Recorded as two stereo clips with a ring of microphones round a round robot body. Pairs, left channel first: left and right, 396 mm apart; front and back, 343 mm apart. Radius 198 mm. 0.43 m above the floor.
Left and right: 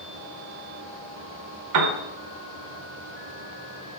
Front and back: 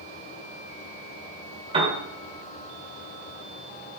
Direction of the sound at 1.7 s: 110° right.